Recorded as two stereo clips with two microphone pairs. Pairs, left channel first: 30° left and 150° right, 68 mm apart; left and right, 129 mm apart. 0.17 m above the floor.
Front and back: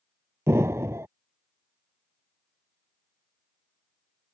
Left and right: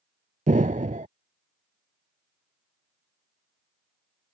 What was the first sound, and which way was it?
An explosion, 100° right.